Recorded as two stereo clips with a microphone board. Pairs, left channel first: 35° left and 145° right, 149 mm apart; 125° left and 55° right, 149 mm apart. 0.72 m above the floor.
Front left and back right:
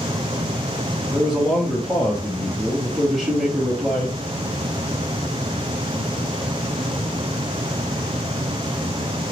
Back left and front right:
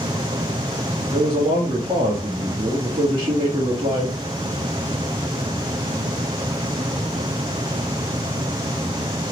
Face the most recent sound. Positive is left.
turn(degrees=-55)